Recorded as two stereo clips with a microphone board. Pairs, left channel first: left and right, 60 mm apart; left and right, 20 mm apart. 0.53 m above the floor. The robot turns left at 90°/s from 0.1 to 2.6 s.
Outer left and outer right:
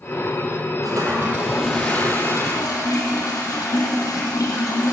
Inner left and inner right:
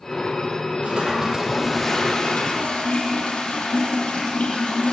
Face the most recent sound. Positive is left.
turn(degrees=90)